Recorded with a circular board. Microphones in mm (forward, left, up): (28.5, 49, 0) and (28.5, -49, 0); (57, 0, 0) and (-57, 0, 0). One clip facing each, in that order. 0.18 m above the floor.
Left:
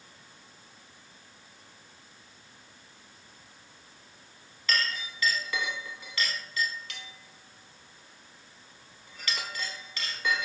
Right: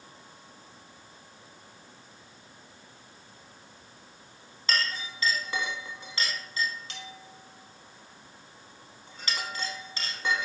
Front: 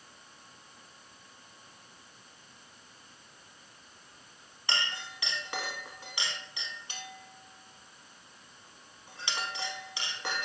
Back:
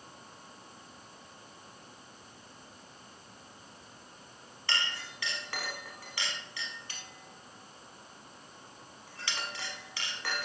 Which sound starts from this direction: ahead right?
A clink, at 4.7 s.